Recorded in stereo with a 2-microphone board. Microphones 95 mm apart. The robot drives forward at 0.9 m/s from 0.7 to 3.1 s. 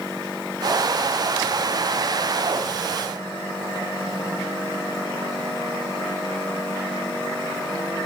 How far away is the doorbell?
No doorbell in this recording.